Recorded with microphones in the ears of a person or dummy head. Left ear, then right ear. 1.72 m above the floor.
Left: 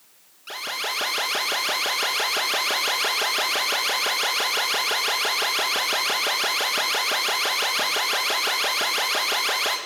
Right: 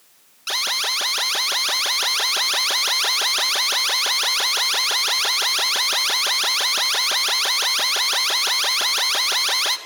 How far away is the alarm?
About 3 m.